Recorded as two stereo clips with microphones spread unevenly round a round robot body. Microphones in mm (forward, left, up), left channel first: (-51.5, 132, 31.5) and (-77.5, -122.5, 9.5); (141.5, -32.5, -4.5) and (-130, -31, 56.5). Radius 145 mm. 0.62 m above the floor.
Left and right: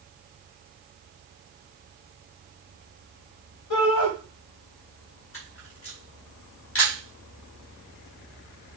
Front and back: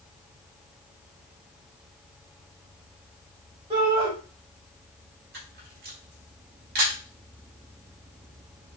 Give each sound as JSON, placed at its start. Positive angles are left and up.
{"t": 3.7, "sound": "a shout", "azimuth_deg": 105, "distance_m": 3.5}
{"t": 5.3, "sound": "a camera shutter", "azimuth_deg": 120, "distance_m": 4.0}